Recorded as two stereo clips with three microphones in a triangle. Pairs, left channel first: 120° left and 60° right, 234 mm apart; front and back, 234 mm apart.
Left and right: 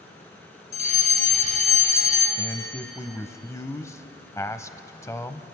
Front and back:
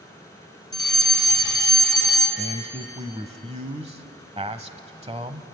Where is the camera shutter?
I don't hear a camera shutter.